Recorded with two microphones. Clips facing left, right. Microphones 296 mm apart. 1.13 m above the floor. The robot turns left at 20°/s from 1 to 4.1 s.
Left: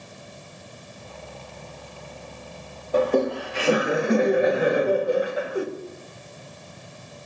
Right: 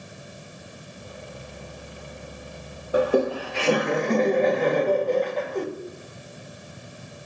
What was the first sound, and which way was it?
Laughter, 10° right (ahead or behind).